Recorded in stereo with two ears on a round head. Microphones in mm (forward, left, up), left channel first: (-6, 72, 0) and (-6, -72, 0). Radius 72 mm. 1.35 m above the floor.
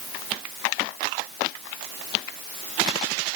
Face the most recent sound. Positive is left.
No sound to turn to.